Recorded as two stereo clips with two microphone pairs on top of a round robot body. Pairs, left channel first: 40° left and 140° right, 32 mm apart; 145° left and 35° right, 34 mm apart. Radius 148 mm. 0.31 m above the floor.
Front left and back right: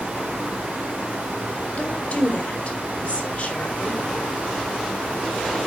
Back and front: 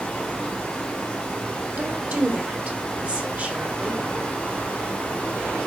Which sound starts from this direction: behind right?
Running water, at 0.0 s.